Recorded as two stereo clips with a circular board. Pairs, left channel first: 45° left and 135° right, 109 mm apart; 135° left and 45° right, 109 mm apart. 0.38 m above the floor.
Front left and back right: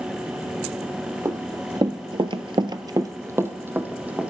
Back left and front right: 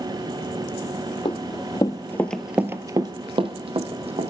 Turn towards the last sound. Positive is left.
turn(degrees=-55)